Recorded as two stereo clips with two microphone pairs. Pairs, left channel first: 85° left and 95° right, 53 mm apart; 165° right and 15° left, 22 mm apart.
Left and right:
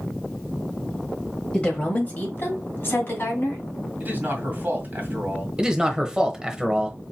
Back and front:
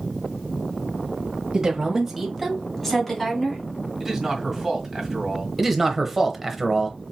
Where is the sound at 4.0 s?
65° right, 2.0 m.